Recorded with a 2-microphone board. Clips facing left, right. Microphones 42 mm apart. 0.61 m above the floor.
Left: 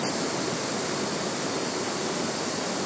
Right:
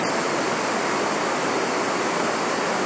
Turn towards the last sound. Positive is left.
turn(degrees=-45)  # may be behind; listen again after turning